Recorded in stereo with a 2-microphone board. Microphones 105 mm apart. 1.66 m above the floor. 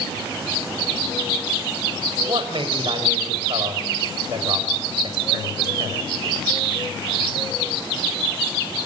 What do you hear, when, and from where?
2.2 s a man speaking: 55° right (ahead or behind), 7 m